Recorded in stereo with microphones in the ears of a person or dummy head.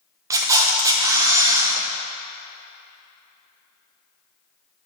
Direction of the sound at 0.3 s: 20° right (ahead or behind).